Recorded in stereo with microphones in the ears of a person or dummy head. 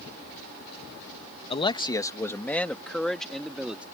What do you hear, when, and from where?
1.5 s a man speaking: 30° left (ahead or behind); by 3.8 s 5° right (ahead or behind)